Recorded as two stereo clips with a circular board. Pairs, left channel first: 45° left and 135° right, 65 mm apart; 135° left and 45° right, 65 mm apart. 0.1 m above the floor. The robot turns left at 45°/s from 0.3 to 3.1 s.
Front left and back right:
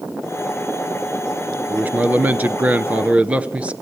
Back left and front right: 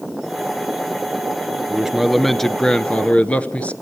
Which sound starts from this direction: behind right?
A man speaking, at 1.7 s.